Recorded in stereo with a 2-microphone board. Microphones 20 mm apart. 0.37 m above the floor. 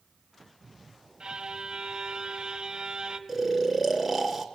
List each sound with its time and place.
1.2 s a violin: 45° right (ahead or behind), 2.5 m
3.3 s snoring: centre (ahead or behind), 2.5 m